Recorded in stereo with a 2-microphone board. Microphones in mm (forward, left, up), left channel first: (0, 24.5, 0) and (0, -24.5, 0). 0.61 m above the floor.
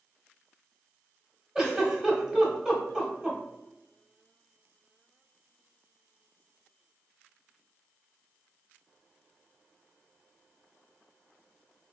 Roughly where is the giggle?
Centre.